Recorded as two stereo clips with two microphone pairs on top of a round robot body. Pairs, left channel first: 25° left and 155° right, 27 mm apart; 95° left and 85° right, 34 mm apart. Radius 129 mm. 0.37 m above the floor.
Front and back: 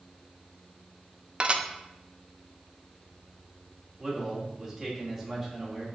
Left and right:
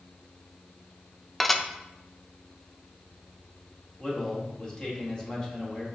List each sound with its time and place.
1.4 s dishes clattering: 165° left, 0.6 m
4.0 s a man speaking: 130° left, 1.8 m